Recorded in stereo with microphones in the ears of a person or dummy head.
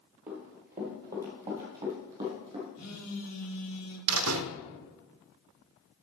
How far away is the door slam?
About 0.6 m.